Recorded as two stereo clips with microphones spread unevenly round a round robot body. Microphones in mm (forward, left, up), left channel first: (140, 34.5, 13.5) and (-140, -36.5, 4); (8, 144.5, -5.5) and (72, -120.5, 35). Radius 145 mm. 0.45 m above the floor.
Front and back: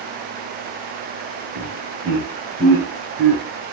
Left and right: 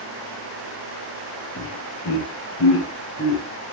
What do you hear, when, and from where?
1.6 s laughter: 140° left, 3 m; by 3.4 s 155° left, 1.5 m